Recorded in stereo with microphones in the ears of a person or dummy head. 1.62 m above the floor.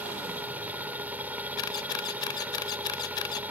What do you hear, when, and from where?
0.0 s a machine running: 15° right (ahead or behind)
1.6 s a camera shutter: 25° left (ahead or behind)